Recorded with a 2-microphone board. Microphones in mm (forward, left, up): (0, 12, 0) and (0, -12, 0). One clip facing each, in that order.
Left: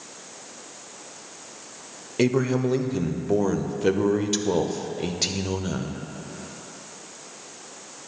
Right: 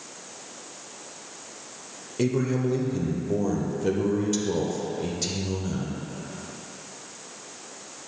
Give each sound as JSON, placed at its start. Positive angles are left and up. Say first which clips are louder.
{"t": 2.2, "sound": "a man speaking", "louder": "left 3 dB", "side_deg": 35, "distance_m": 0.6}